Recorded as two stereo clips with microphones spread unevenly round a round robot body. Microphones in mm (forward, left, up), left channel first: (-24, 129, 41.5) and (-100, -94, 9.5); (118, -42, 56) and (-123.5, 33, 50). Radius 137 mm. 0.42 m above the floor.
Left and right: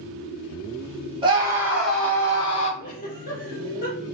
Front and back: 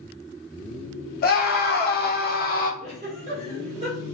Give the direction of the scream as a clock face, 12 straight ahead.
2 o'clock.